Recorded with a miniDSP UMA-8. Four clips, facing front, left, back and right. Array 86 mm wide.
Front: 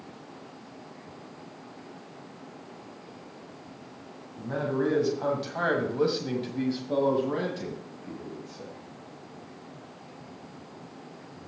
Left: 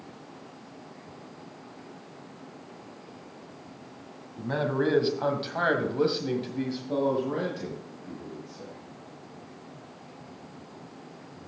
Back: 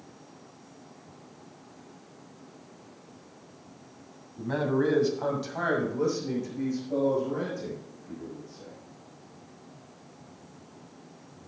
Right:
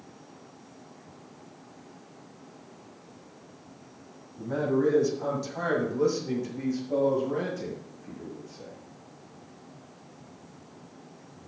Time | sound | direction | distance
4.4 | a man speaking | 120° left | 2 m